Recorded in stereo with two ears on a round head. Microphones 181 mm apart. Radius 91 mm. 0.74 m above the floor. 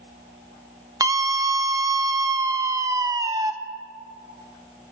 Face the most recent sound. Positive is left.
turn(degrees=-15)  # may be behind; listen again after turning